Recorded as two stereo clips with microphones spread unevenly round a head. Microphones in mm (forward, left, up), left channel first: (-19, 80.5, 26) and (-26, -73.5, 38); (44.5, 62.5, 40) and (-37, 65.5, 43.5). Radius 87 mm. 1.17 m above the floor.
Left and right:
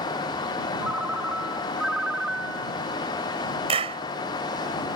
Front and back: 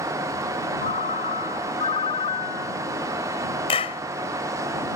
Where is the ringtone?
10° right.